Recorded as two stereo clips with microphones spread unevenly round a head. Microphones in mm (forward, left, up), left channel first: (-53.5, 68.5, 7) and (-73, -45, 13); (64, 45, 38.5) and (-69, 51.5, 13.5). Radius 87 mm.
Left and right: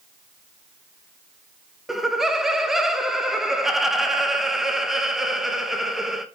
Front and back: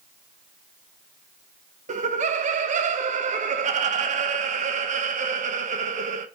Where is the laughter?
175° left, 1.0 m.